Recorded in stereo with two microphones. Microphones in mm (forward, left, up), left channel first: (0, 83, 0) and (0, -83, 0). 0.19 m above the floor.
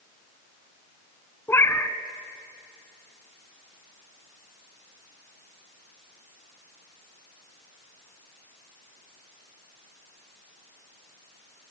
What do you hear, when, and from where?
1.5 s a cat meowing: 15° left (ahead or behind), 0.8 m